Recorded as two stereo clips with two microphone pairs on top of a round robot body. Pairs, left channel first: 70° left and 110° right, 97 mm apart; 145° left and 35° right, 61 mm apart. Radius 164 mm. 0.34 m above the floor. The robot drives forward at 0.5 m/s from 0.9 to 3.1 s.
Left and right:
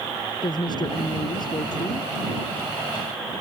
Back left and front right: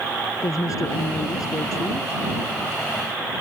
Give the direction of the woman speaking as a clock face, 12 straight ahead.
8 o'clock.